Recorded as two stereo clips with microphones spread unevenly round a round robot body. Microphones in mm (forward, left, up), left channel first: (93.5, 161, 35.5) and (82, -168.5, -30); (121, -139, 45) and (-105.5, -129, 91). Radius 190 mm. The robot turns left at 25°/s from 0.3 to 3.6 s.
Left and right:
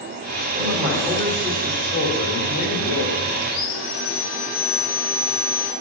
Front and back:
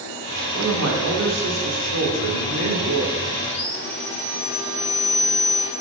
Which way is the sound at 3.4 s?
85° left.